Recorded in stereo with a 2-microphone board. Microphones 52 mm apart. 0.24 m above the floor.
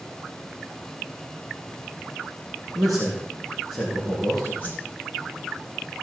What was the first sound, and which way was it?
A man speaking, 5° left (ahead or behind).